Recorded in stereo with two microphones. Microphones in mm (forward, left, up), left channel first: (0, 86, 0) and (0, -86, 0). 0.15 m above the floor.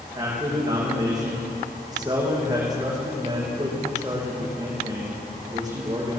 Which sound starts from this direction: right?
A man speaking, at 0.1 s.